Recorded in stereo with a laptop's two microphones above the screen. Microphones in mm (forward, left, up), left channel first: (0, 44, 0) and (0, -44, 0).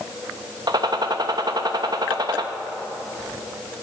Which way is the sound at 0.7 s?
50° right (ahead or behind).